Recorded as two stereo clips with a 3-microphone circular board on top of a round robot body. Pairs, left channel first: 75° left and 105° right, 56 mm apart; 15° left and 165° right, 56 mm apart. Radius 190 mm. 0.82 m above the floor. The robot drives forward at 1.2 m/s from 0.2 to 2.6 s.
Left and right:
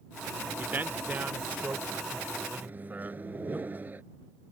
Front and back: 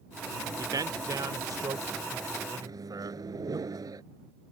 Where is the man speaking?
160° right; by 3.6 s 170° right.